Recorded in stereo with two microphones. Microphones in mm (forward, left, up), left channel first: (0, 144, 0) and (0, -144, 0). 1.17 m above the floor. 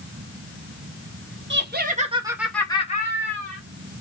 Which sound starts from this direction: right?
Laughter, at 1.5 s.